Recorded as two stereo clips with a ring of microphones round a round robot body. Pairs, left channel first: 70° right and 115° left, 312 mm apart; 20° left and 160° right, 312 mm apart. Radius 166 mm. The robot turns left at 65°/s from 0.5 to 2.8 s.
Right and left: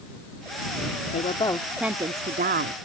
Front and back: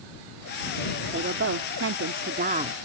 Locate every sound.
1.1 s a woman speaking: 115° right; by 2.7 s 140° left